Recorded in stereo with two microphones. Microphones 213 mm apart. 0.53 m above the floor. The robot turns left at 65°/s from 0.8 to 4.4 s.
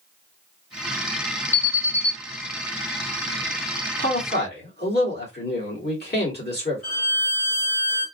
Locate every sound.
1.5 s an alarm: 70° right, 1.8 m; by 2.1 s 110° right, 1.8 m
4.0 s a man speaking: 30° left (ahead or behind), 1.8 m; by 6.8 s 45° left (ahead or behind), 1.8 m
6.8 s a violin: 65° left (ahead or behind), 2.5 m